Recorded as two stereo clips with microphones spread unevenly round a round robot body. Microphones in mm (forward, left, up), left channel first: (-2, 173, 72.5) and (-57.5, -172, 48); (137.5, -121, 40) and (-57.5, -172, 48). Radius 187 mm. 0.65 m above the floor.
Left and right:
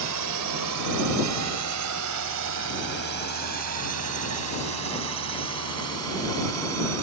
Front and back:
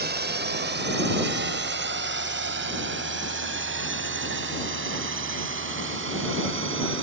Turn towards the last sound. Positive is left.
turn(degrees=-145)